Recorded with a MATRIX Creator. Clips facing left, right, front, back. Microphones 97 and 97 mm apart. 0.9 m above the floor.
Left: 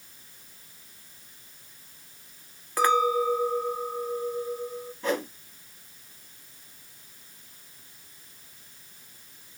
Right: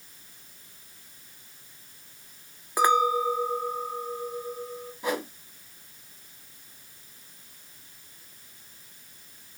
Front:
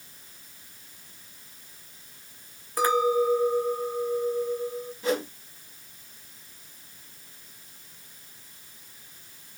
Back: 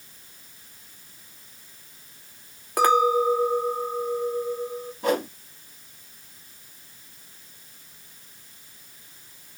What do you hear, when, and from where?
2.8 s a clink: 160° right, 1.0 m
5.0 s a whoosh: 165° right, 1.4 m